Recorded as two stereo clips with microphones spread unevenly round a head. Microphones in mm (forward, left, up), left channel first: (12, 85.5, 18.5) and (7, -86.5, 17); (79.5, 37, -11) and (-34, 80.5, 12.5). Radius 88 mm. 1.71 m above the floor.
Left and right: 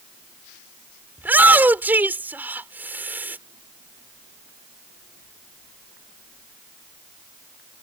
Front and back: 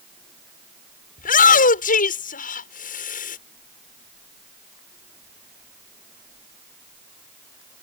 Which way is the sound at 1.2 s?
10° right.